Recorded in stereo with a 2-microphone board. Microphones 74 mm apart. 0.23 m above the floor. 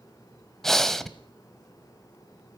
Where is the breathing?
5° left (ahead or behind), 1.0 m.